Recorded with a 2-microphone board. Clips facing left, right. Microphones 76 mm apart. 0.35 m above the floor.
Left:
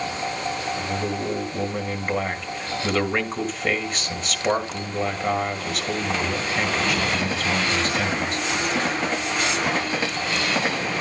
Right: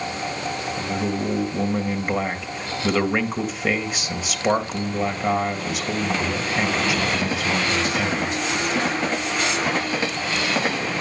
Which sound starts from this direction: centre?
A man speaking, at 0.8 s.